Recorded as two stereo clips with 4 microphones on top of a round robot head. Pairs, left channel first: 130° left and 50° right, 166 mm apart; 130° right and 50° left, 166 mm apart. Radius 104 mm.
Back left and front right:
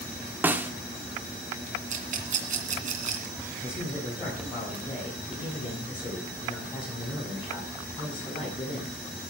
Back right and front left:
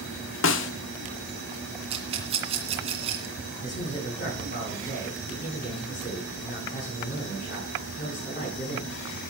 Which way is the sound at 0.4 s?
130° right.